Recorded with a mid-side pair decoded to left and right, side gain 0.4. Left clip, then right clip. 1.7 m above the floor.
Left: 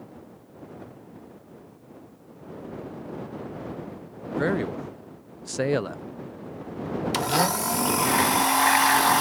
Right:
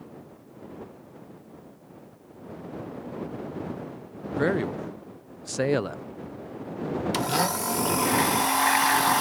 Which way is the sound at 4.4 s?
Straight ahead.